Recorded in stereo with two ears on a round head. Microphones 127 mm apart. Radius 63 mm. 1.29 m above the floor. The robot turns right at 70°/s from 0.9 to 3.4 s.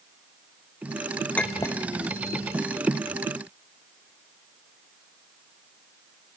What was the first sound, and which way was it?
A clink, 10° left (ahead or behind).